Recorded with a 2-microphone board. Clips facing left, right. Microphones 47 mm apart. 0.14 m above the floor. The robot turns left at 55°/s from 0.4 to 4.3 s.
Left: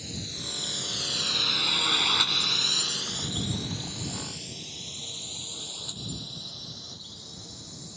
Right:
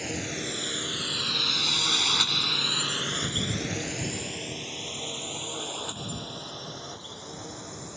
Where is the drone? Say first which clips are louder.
Right 6 dB; 55° right (ahead or behind); by 8.0 s 40° right (ahead or behind).